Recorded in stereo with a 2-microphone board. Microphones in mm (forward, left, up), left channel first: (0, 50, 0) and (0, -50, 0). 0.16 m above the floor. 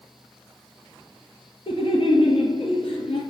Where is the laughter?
60° left (ahead or behind), 2.5 m.